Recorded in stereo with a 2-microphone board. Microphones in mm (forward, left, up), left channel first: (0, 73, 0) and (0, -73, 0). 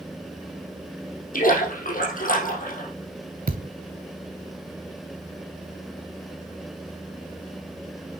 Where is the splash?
70° left (ahead or behind), 4 m.